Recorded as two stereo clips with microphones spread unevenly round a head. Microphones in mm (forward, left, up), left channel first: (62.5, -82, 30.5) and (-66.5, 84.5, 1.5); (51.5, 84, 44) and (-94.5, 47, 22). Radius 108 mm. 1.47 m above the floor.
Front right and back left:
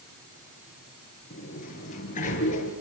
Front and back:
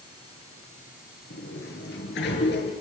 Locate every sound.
1.3 s a sliding door: 5° left, 7 m